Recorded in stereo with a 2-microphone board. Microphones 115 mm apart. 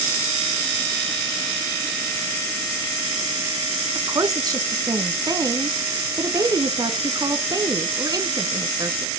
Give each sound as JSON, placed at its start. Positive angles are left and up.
{"t": 4.0, "sound": "a woman speaking", "side_deg": -35, "distance_m": 1.3}